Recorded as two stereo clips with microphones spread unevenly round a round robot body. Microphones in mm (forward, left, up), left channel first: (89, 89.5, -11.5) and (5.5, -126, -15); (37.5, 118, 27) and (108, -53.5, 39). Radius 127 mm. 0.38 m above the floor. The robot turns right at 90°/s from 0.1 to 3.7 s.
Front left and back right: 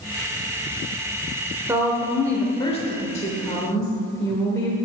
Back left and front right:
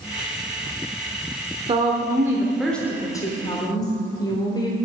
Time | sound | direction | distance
1.7 | a woman speaking | 55° right | 1.0 m